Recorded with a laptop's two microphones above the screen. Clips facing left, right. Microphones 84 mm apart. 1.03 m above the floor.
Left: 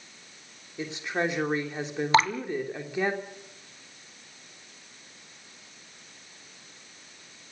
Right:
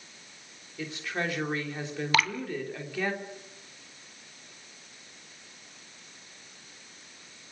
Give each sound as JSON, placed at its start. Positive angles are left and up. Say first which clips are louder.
{"t": 0.8, "sound": "a woman speaking", "louder": "left 4 dB", "side_deg": 20, "distance_m": 3.0}
{"t": 2.1, "sound": "dripping", "louder": "left 5 dB", "side_deg": 30, "distance_m": 1.3}